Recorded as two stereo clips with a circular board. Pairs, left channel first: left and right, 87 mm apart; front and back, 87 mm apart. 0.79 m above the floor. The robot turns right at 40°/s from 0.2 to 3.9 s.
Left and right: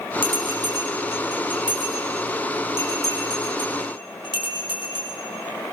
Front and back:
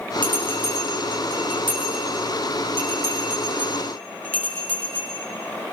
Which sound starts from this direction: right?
A bell, at 0.2 s.